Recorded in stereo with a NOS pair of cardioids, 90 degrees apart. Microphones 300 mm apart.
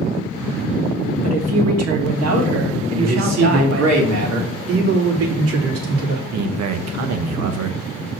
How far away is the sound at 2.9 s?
About 3 m.